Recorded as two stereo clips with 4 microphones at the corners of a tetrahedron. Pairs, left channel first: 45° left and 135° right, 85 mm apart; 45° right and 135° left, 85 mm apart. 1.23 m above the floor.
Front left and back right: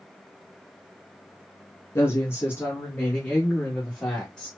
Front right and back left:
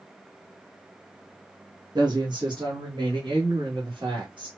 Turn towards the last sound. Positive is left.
turn(degrees=120)